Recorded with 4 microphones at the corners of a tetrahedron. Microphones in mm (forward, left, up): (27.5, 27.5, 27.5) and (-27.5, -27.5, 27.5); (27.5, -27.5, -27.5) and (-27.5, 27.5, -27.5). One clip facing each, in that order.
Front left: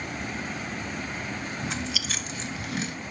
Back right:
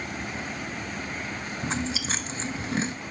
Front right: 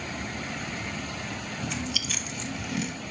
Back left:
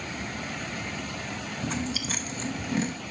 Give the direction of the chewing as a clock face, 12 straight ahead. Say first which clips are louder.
Back right 6 dB, back left 4 dB; 6 o'clock.